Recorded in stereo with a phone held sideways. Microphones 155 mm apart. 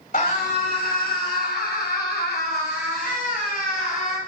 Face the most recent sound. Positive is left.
turn(degrees=55)  # may be behind; listen again after turning